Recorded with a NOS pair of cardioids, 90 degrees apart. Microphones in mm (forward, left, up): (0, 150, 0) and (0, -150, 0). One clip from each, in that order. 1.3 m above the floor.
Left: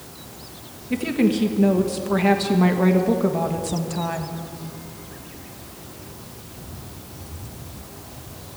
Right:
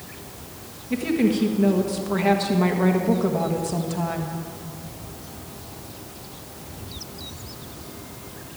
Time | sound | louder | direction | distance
0.9 | a woman speaking | left 1 dB | 15° left | 1.4 m